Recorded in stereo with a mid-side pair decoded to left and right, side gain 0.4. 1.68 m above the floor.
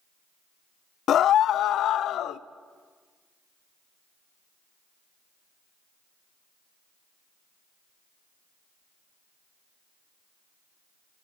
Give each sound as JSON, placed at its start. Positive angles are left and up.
{"t": 1.1, "sound": "a scream", "azimuth_deg": 70, "distance_m": 0.5}